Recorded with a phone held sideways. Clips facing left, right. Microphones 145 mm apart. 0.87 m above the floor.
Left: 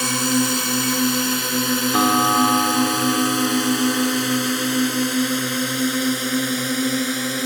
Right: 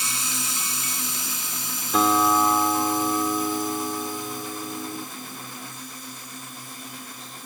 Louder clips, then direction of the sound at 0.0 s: Left 15 dB; 65° left (ahead or behind).